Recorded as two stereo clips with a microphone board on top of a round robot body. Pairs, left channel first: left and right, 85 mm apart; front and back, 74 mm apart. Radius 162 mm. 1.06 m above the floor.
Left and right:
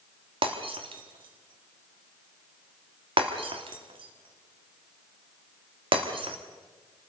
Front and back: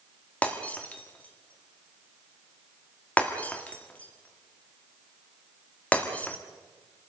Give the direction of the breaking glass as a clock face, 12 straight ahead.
2 o'clock.